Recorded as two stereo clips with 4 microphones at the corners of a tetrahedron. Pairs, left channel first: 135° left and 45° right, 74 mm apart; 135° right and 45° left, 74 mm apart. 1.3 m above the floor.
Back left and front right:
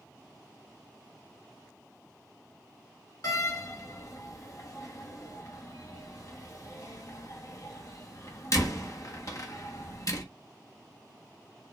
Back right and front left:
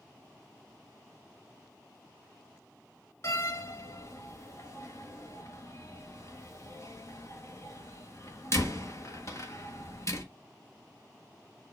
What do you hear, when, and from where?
3.2 s a door slam: 175° left, 1.4 m